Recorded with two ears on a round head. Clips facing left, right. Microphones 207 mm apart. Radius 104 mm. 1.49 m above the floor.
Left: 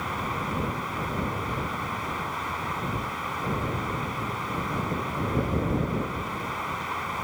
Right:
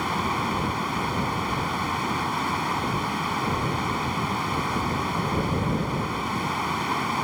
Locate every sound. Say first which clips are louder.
0.0 s running water: right 5 dB; 60° right (ahead or behind)